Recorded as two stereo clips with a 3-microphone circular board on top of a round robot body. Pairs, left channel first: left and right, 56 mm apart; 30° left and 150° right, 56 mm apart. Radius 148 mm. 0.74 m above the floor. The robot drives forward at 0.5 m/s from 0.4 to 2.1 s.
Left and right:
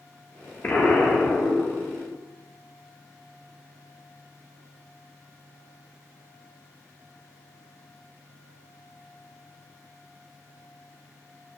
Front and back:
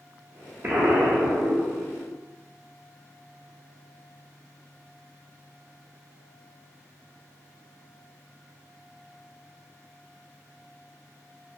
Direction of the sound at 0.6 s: 150° left.